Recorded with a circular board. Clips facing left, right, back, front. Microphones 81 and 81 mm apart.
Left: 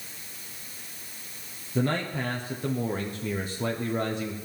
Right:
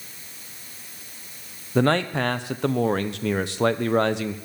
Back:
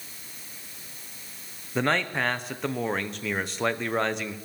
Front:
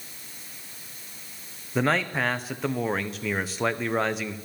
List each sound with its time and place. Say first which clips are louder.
1.8 s a man speaking: right 7 dB, front 1 dB; 90° right, 1.0 m